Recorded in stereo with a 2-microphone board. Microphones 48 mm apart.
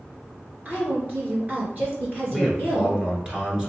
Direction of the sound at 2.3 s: 20° right (ahead or behind).